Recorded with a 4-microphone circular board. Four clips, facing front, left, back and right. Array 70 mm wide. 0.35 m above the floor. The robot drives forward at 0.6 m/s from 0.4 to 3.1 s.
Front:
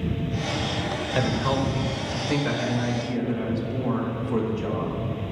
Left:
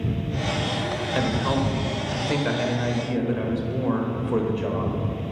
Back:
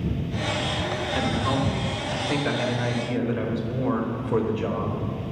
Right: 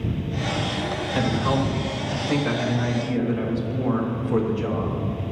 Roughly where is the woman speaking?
Ahead left.